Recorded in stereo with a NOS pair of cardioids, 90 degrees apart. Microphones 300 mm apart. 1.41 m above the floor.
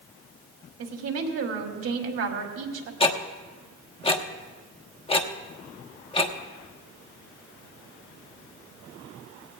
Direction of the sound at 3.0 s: 20° left.